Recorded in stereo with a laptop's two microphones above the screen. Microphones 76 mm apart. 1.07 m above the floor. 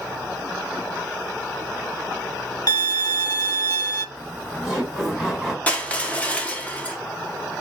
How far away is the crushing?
About 1.3 m.